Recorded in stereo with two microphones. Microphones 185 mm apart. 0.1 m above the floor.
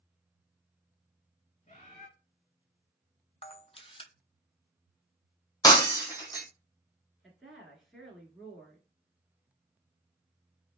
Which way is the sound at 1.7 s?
35° left (ahead or behind).